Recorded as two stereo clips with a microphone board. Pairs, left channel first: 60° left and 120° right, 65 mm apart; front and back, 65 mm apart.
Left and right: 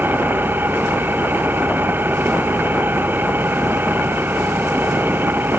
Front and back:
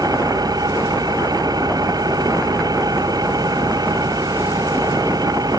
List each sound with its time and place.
0.0 s an engine running: straight behind